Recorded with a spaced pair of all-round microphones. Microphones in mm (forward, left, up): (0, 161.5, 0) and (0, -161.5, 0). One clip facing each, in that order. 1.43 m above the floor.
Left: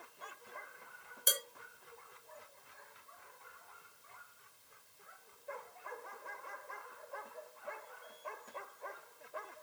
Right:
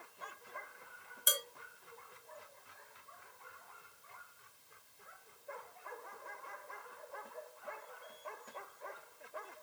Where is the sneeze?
No sneeze in this recording.